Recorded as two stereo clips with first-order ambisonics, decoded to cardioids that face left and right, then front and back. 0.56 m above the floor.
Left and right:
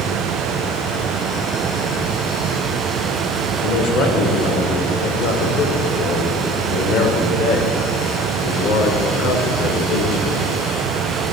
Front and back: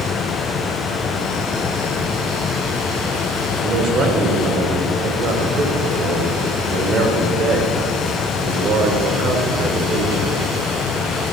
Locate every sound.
3.6 s a man speaking: 130° left, 1.8 m